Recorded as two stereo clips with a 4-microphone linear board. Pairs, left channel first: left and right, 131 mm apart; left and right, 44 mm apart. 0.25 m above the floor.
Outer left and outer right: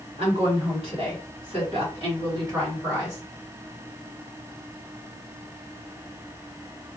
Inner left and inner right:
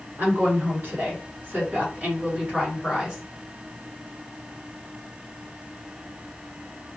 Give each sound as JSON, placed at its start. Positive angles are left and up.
{"t": 0.2, "sound": "a woman speaking", "side_deg": -50, "distance_m": 2.0}